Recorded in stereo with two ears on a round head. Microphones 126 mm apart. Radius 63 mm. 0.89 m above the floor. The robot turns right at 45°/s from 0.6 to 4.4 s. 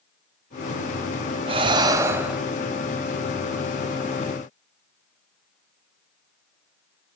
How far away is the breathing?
About 0.6 m.